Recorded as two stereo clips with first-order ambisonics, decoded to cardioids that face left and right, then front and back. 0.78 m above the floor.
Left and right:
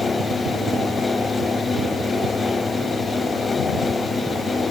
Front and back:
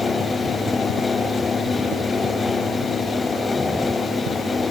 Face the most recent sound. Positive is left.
No sound to turn to.